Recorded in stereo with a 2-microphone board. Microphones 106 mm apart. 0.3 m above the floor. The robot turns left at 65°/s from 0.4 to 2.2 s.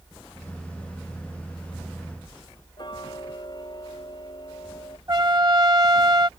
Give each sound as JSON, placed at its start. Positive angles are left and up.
{"t": 2.8, "sound": "ticking", "side_deg": 45}
{"t": 5.1, "sound": "a trumpet", "side_deg": -35}